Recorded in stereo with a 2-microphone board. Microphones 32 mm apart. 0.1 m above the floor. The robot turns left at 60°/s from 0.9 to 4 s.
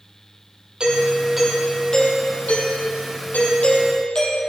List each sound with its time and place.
0.8 s a doorbell: 145° right, 3.5 m; by 4.4 s 30° left, 3.5 m